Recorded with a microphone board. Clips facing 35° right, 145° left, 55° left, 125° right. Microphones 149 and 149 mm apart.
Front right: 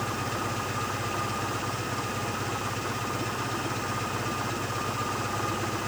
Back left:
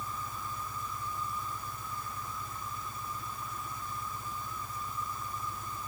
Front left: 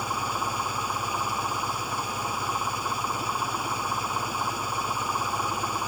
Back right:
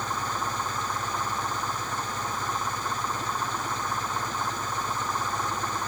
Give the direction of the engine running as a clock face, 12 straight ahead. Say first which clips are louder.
Front right 9 dB, front left 1 dB; 1 o'clock.